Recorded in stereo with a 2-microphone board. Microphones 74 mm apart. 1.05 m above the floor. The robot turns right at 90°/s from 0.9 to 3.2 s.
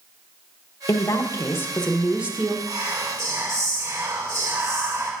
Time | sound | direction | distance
0.9 | a woman speaking | 80° left | 0.9 m
2.7 | whispering | 100° right | 2.5 m